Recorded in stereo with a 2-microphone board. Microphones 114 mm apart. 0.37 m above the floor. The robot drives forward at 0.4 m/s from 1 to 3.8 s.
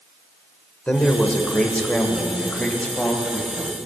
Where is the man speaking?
15° left (ahead or behind), 0.9 m; by 3.8 s 5° left (ahead or behind), 1.8 m.